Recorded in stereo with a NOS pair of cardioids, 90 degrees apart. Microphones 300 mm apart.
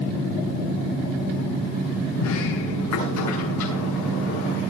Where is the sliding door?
70° left, 9 m.